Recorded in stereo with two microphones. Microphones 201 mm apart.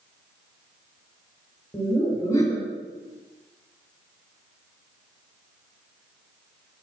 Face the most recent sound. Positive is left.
turn(degrees=15)  # may be behind; listen again after turning